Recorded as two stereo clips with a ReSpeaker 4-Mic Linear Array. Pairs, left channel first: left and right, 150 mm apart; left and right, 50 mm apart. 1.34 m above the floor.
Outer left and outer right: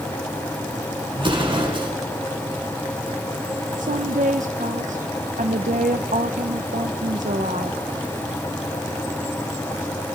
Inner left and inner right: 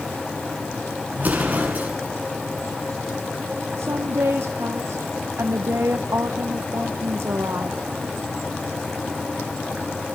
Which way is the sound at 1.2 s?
35° right (ahead or behind).